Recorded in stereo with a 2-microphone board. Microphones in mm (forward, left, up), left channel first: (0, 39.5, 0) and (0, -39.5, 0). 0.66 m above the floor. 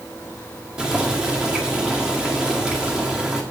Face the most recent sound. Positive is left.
turn(degrees=-10)  # may be behind; listen again after turning